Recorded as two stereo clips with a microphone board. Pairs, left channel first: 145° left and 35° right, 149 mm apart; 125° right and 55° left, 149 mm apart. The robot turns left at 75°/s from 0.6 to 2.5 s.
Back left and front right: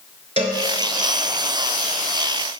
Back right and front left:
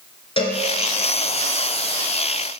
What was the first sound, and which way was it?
A cowbell, 75° right.